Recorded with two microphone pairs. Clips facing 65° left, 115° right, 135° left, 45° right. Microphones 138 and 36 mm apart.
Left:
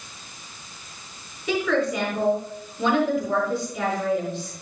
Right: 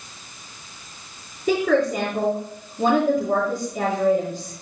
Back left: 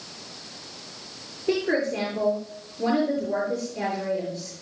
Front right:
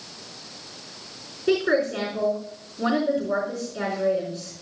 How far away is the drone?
I don't hear a drone.